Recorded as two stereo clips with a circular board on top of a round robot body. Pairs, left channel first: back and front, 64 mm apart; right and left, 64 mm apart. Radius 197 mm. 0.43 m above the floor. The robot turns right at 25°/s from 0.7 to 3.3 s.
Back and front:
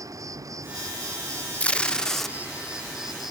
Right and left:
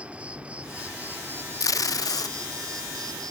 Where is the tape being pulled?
110° right; by 2.4 s 95° right.